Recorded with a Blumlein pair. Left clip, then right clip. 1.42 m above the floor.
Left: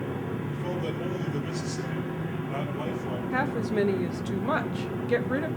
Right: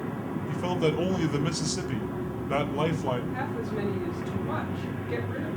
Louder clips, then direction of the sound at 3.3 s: Left 5 dB; 30° left.